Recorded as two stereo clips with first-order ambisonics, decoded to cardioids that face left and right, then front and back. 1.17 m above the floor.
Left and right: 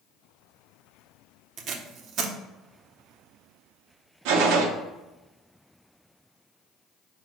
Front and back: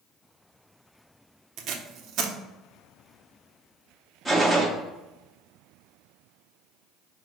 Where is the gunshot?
90° right, 0.7 m.